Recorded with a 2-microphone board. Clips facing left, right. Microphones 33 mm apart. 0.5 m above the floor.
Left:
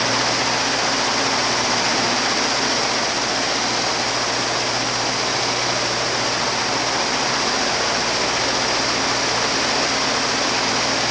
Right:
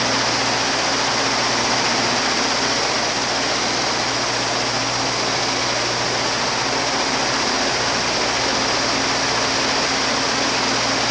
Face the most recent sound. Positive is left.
No sound to turn to.